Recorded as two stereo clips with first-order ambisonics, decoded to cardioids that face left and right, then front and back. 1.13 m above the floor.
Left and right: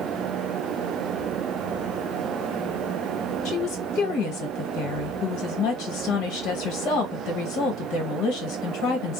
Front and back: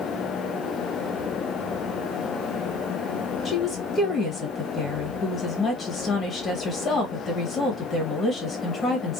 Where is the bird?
No bird in this recording.